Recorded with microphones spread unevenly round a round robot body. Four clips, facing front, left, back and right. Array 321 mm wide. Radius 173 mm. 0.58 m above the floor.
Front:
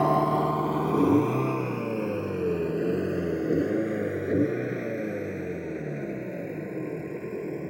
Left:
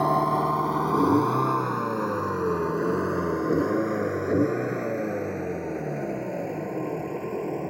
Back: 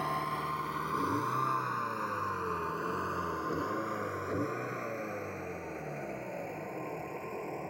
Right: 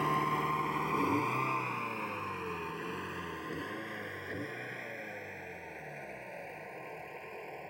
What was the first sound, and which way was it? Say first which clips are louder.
A vehicle: left 9 dB, front 12 dB; 30° left.